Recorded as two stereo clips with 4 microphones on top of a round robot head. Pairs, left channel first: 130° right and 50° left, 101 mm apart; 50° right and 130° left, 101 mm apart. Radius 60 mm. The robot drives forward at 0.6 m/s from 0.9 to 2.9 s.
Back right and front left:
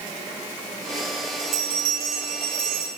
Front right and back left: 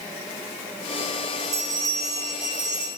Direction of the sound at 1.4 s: 75° left.